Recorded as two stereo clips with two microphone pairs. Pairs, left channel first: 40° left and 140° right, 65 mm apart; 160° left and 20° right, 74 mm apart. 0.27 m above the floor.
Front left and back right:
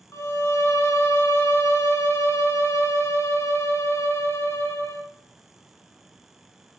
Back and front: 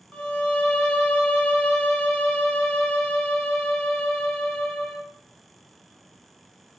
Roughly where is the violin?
Left.